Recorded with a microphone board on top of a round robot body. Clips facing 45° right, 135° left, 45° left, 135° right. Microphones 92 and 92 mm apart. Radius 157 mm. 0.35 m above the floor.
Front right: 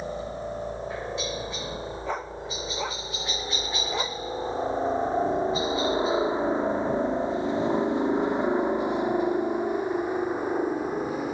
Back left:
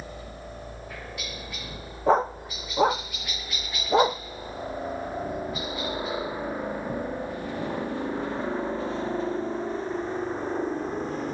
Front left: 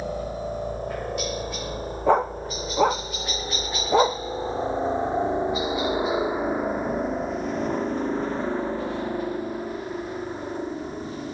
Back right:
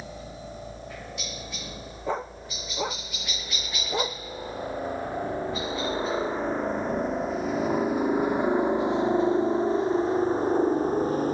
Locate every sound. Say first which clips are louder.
0.0 s a helicopter: front right 8 dB, front left 10 dB; 20° left; by 11.3 s 125° right
2.1 s a dog barking: back left 14 dB, front left 10 dB; 80° left